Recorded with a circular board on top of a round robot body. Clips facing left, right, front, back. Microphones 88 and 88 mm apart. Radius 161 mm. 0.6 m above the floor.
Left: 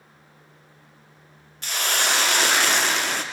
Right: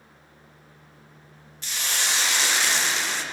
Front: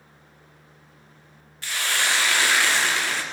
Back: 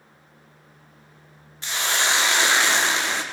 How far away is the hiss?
About 1.1 m.